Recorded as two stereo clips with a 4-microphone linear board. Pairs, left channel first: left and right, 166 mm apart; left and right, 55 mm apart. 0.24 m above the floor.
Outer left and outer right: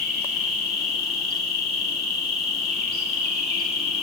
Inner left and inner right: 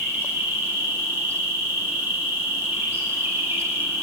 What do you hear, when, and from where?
0.0 s an insect: 40° right (ahead or behind), 1.3 m